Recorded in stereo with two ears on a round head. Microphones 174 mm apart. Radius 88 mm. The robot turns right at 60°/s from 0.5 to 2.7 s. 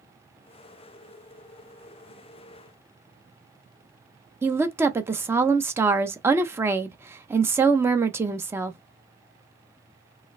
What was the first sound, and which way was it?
A woman speaking, 15° right (ahead or behind).